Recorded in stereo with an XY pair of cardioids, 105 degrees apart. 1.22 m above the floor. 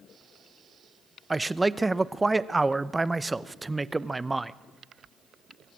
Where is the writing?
No writing in this recording.